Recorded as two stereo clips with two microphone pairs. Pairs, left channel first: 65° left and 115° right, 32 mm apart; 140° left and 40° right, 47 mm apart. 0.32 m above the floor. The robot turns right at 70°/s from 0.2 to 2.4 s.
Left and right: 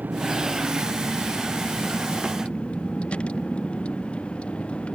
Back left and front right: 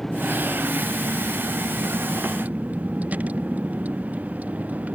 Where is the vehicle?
140° right; by 5.0 s 15° left.